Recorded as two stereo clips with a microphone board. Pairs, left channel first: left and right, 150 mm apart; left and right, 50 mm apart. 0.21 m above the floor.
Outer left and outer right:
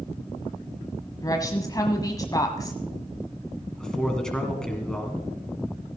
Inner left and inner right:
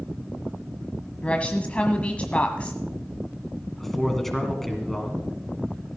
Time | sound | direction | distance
1.2 | a woman speaking | 25° left (ahead or behind) | 1.1 m
3.8 | a man speaking | 5° left (ahead or behind) | 2.5 m